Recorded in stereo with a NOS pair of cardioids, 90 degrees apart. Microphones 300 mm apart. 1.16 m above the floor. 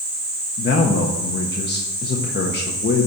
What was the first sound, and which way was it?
A man speaking, 35° left.